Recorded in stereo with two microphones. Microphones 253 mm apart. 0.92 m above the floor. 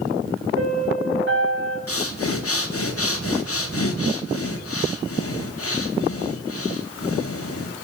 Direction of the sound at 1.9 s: 65° left (ahead or behind).